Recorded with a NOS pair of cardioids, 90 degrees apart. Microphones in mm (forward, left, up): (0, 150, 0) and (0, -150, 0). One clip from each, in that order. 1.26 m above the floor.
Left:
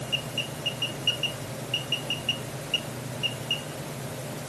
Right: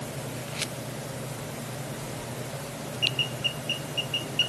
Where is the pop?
No pop in this recording.